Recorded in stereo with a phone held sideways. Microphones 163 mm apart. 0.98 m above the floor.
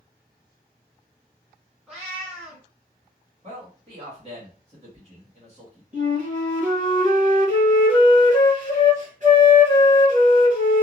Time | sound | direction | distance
1.9 | a cat meowing | 5° right (ahead or behind) | 1.2 m
3.4 | a man speaking | 40° right (ahead or behind) | 1.2 m
5.9 | a flute | 50° right (ahead or behind) | 1.0 m